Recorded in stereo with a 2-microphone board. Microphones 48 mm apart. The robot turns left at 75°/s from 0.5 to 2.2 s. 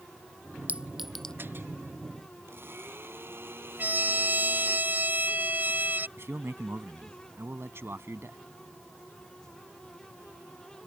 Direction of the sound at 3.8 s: 40° right (ahead or behind).